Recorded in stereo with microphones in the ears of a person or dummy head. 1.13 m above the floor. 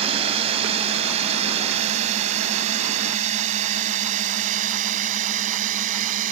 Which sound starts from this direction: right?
A drone, at 0.0 s.